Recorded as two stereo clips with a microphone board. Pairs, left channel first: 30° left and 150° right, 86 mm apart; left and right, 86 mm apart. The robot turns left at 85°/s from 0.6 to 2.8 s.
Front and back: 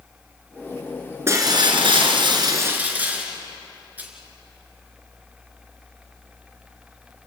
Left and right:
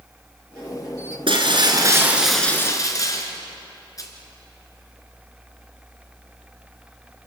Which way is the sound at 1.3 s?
90° right.